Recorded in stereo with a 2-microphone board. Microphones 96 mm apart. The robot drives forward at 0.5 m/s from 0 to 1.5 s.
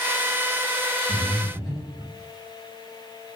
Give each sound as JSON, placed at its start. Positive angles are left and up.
{"t": 1.1, "sound": "breathing", "side_deg": 5, "distance_m": 1.8}